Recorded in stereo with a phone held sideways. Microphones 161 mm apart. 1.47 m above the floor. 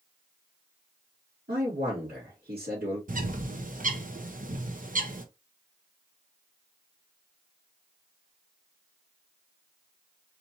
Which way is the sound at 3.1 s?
55° right (ahead or behind).